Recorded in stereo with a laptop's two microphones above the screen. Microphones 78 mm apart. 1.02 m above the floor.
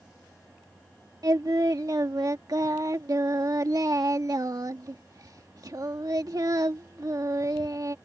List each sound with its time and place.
1.2 s singing: 55° right (ahead or behind)